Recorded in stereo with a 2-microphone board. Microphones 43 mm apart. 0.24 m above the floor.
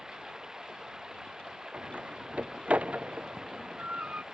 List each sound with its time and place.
0.0 s running water: 15° right (ahead or behind)
1.7 s a door slam: 30° right (ahead or behind)